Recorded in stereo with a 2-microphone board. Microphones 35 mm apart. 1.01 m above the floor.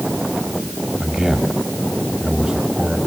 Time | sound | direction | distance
1.0 | a man speaking | 10° right (ahead or behind) | 6 m